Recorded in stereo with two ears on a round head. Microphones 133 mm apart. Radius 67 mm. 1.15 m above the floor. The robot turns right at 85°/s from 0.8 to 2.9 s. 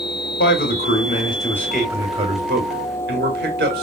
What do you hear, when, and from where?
0.4 s a man speaking: 100° left, 1.9 m; by 3.8 s 80° right, 1.9 m